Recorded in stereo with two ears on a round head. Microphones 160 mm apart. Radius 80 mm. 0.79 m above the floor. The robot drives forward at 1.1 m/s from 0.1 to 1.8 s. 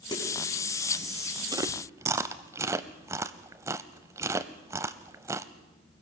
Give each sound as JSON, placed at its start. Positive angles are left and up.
{"t": 0.1, "sound": "a snare drum", "side_deg": 25, "distance_m": 4.5}
{"t": 1.5, "sound": "chewing", "side_deg": -20, "distance_m": 0.6}